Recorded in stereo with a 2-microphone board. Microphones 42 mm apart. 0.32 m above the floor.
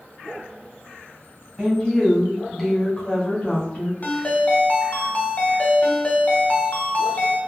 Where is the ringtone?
40° left (ahead or behind), 0.7 m.